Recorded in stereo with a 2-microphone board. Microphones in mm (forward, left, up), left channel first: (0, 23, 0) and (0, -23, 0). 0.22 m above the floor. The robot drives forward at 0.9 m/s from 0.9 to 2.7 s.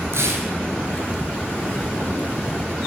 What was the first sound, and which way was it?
Tearing paper, 70° right (ahead or behind).